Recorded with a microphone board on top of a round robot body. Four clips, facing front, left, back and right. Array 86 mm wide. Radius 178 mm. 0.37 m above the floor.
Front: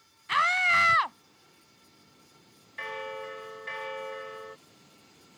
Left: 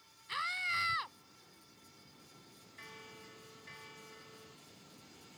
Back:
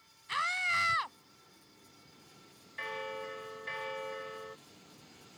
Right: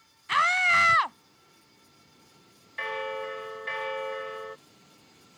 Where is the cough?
I don't hear a cough.